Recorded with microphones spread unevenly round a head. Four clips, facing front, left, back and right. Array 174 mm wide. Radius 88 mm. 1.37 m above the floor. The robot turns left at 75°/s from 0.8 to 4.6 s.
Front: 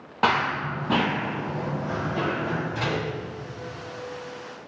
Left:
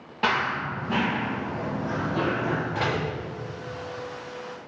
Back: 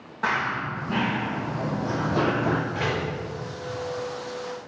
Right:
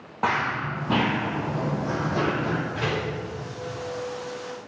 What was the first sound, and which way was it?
Running footsteps, 15° right.